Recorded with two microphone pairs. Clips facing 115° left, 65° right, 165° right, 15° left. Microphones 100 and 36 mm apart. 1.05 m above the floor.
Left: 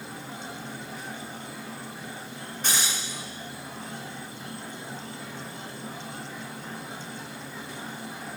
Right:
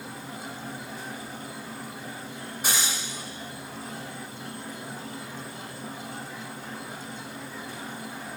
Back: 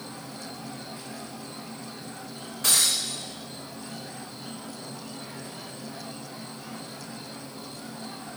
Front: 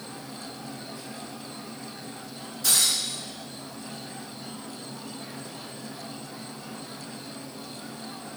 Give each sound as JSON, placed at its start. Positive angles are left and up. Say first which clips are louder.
{"t": 0.0, "sound": "an insect", "louder": "even, even", "azimuth_deg": -115, "distance_m": 1.3}
{"t": 2.6, "sound": "breaking glass", "louder": "even, even", "azimuth_deg": -140, "distance_m": 1.3}